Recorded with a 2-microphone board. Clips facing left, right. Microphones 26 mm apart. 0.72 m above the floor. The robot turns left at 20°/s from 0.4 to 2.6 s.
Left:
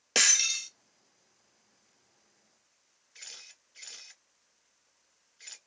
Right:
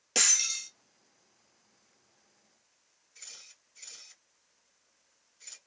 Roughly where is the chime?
I don't hear a chime.